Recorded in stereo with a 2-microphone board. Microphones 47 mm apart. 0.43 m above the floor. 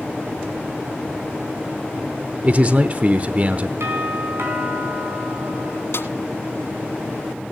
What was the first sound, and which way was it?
A man speaking, 35° right (ahead or behind).